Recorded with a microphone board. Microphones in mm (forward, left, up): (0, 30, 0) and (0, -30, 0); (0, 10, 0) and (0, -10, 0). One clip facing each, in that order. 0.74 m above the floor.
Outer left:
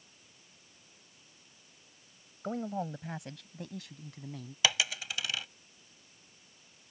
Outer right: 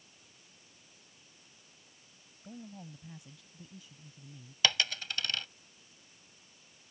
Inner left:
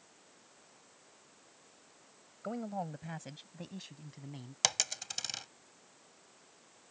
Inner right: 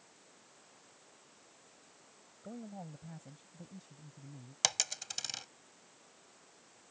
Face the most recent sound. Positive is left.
turn(degrees=10)  # may be behind; listen again after turning